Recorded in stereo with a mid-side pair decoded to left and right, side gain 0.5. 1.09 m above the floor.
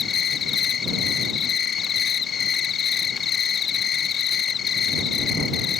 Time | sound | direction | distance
0.0 | an insect | 50° left | ?